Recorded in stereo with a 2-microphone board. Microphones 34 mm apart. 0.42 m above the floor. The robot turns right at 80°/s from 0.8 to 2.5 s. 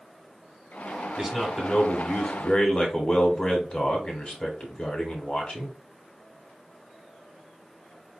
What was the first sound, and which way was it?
A man speaking, 20° right.